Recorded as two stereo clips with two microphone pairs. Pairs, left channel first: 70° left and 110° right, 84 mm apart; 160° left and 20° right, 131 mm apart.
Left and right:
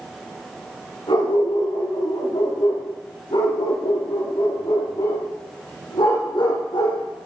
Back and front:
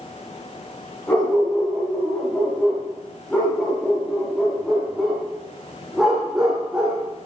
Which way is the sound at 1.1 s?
80° left.